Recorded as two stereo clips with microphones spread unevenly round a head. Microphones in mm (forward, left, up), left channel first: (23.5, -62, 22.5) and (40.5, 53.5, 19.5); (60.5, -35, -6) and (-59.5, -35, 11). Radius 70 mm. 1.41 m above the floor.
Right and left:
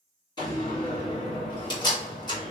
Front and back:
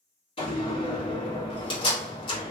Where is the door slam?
45° right, 2.0 m.